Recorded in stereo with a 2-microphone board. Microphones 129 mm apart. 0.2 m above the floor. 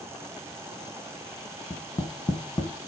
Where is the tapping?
35° left (ahead or behind), 1.4 m.